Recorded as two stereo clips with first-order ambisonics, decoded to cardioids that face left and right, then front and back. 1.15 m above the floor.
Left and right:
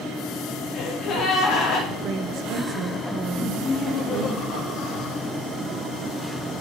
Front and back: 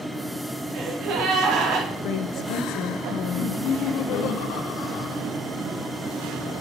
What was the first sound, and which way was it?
A gasp, 150° left.